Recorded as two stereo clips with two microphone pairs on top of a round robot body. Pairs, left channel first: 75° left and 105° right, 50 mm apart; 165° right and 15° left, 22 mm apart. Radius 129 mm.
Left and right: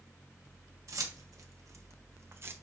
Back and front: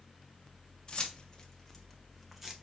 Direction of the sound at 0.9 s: 110° right.